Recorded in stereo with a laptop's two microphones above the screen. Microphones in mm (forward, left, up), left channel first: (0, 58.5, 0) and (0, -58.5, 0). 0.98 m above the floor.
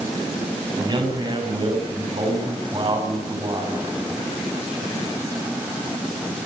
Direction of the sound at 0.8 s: 40° right (ahead or behind).